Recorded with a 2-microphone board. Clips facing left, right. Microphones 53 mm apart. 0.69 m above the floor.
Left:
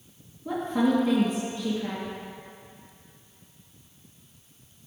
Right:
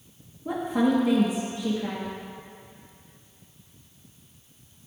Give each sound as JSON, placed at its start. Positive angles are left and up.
{"t": 0.5, "sound": "a woman speaking", "side_deg": -15, "distance_m": 1.2}